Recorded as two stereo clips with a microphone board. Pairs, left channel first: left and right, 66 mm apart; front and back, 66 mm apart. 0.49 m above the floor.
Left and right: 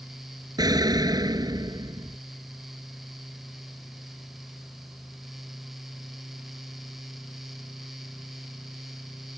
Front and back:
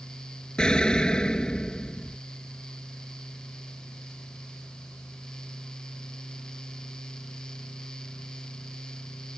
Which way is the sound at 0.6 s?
75° right.